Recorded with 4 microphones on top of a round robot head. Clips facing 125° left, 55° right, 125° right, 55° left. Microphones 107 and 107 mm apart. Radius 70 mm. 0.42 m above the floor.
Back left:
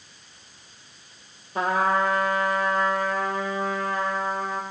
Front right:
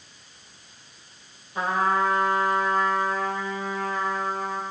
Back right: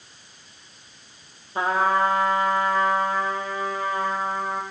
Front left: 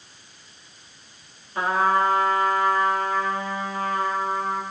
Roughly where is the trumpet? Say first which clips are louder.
Back left 1 dB, even; behind.